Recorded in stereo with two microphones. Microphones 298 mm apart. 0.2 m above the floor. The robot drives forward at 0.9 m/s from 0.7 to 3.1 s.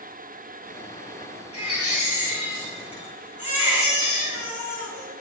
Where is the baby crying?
85° left, 8.5 m; by 5.2 s 80° left, 8.5 m.